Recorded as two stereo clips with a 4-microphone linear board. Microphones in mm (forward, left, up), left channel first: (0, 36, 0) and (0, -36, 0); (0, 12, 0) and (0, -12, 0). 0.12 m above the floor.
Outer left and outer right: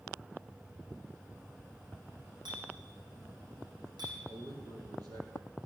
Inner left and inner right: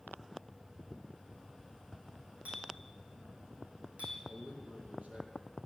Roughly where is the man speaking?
Right.